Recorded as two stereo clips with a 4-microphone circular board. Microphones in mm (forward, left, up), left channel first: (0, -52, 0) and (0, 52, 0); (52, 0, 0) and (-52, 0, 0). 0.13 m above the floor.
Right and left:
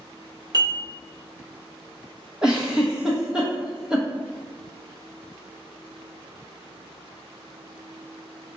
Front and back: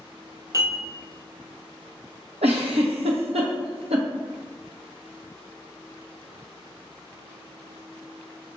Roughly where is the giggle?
Behind.